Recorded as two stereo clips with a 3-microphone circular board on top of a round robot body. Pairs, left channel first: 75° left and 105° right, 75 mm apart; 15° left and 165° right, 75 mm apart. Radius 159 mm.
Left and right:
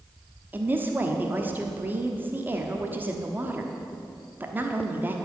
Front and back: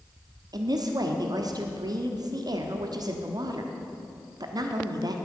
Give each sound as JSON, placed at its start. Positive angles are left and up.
{"t": 0.5, "sound": "a woman speaking", "azimuth_deg": -165, "distance_m": 1.3}